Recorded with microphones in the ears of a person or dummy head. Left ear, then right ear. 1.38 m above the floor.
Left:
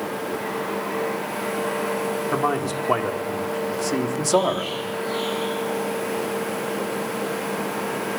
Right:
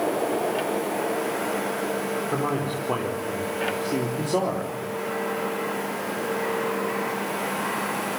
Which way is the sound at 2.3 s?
70° left (ahead or behind).